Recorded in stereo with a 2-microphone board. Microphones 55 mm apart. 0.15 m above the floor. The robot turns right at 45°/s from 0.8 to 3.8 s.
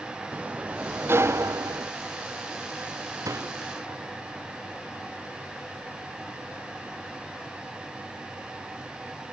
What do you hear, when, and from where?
0.3 s a sliding door: 145° right; by 1.9 s 95° right
3.2 s a door slam: 80° right; by 3.6 s 65° right (ahead or behind)